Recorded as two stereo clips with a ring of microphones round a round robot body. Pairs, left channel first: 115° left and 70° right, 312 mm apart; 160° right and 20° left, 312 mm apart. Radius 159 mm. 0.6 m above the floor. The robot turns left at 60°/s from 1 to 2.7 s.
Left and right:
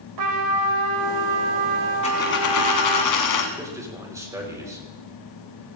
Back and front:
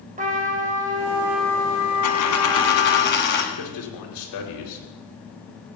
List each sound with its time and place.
0.2 s a trumpet: 45° right, 2 m; by 3.0 s 145° right, 2 m
2.0 s a dropped coin: 175° right, 1.8 m; by 3.5 s 145° left, 1.8 m
3.5 s a man speaking: 145° right, 3.5 m